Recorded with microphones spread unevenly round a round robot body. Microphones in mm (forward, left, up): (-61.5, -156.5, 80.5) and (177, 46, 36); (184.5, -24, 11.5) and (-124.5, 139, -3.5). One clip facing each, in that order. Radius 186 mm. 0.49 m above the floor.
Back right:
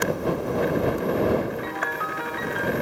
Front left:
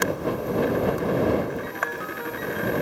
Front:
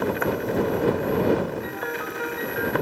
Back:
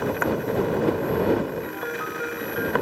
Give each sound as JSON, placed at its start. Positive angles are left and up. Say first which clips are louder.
{"t": 1.6, "sound": "a piano", "louder": "back right 1 dB, even", "azimuth_deg": -120}